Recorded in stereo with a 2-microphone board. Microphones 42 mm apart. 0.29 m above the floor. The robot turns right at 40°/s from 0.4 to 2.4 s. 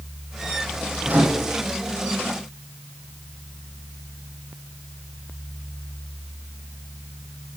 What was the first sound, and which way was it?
A microwave, 30° right (ahead or behind).